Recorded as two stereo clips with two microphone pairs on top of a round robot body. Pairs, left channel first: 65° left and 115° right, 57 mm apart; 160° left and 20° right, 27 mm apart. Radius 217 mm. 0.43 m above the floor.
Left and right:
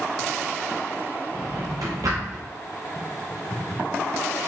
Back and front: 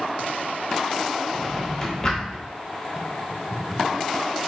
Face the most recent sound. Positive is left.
turn(degrees=-130)